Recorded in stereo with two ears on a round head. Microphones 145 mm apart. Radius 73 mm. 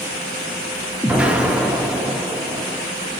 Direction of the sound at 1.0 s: 10° right (ahead or behind).